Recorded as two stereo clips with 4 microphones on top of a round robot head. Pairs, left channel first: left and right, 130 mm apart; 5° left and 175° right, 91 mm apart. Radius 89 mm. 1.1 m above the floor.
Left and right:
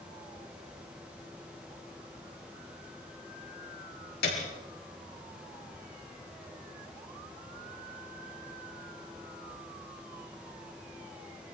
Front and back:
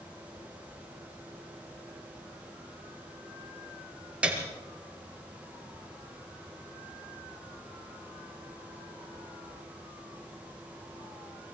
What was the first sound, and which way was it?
A piano, 110° left.